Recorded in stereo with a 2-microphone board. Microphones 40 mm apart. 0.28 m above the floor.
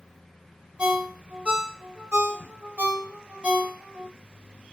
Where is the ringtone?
25° right (ahead or behind), 0.6 m.